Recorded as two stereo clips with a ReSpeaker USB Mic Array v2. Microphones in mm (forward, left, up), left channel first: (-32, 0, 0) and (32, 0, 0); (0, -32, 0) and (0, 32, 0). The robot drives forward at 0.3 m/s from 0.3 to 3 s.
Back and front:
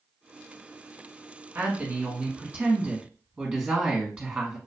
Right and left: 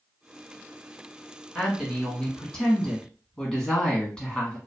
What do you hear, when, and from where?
1.6 s a woman speaking: 20° right, 1.3 m; by 4.6 s 45° right, 1.1 m